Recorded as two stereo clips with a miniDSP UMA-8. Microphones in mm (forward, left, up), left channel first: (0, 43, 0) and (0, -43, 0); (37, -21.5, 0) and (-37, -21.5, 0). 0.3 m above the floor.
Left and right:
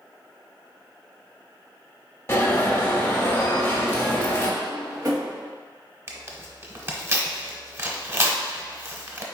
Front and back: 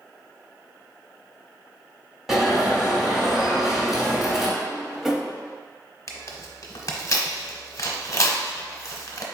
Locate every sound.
2.3 s an alarm: 95° left, 1.2 m
4.6 s a drawer: 95° right, 0.9 m
6.1 s tearing paper: 35° right, 0.8 m